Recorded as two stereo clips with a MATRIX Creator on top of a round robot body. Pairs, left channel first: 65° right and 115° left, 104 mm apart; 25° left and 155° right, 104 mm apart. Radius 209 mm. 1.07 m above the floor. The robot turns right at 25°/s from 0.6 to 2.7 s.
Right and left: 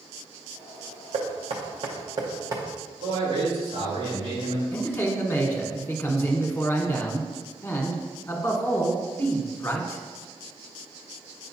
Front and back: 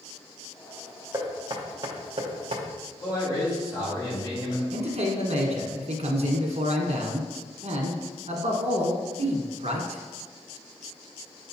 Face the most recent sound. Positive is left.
turn(degrees=-140)